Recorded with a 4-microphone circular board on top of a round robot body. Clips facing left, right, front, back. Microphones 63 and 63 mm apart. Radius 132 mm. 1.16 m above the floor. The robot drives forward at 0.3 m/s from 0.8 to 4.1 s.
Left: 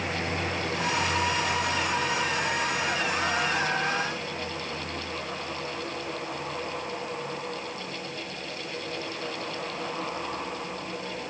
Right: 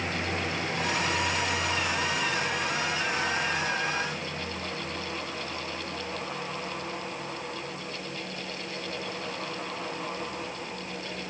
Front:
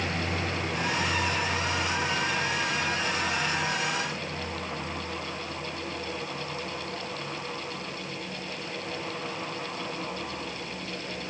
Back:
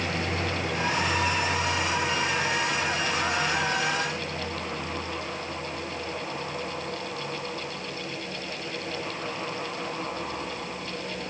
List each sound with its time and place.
Only background noise.